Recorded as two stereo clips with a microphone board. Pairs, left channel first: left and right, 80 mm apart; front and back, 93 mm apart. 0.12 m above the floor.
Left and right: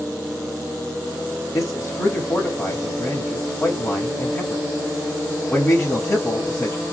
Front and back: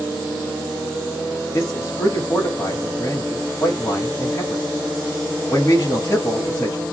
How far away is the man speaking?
About 2.5 m.